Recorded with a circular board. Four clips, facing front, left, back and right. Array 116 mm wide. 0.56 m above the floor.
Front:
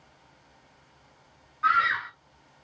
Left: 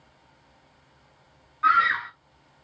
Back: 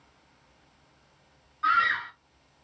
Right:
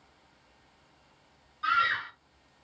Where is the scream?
75° left, 0.7 m.